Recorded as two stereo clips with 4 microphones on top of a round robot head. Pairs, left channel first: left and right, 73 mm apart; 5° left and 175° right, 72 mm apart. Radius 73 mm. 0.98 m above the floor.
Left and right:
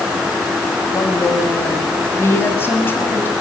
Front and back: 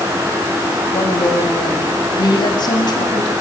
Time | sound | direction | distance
0.9 | a woman speaking | 40° left | 6 m